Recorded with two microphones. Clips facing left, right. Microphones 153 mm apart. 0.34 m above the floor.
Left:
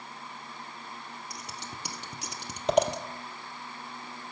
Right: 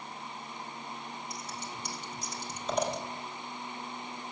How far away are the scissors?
About 1.4 m.